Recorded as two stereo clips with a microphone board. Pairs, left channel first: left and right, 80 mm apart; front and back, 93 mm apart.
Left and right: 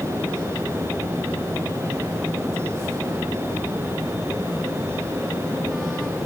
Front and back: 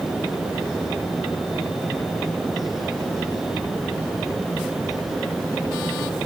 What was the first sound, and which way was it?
Only background noise.